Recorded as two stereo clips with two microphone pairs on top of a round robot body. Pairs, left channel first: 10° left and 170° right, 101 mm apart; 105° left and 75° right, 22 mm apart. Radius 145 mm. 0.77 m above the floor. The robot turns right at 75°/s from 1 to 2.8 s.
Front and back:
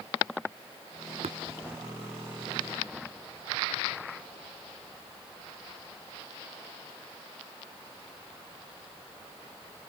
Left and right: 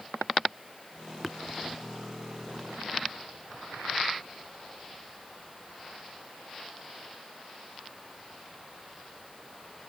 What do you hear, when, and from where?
1.2 s tapping: 165° right; by 1.4 s 155° right